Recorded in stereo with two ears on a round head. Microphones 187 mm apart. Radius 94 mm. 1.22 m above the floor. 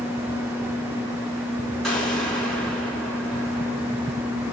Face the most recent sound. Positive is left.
turn(degrees=0)  # may be behind; listen again after turning